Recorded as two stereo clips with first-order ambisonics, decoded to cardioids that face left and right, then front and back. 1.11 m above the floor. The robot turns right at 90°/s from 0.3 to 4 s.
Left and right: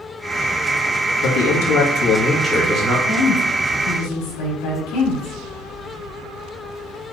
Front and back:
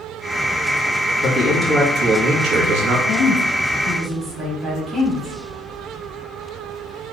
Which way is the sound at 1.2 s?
60° left.